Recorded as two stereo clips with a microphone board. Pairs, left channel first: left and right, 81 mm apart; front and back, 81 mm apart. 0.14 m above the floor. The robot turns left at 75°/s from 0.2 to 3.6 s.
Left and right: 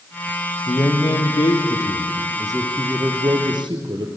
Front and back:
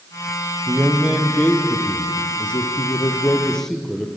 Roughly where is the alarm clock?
No alarm clock in this recording.